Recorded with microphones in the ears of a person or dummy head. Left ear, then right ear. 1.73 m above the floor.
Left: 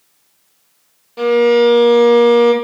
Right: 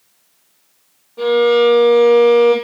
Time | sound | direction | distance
1.2 | a violin | 70° left (ahead or behind) | 0.6 m